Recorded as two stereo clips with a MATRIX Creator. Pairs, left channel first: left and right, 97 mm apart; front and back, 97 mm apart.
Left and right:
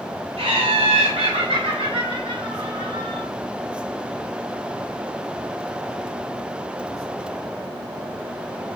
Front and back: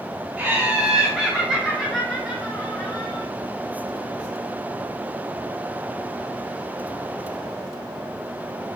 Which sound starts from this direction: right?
Laughter, at 0.4 s.